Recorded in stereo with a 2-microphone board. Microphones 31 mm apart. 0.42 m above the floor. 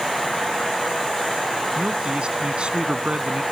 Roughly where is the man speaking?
Right.